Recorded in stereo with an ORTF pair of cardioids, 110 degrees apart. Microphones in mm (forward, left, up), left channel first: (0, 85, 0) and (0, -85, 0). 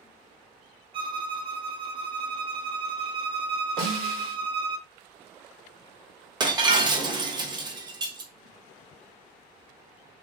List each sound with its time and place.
0.9 s a violin: 30° right, 0.5 m
3.8 s a snare drum: 65° right, 1.8 m
6.4 s breaking glass: 30° right, 0.6 m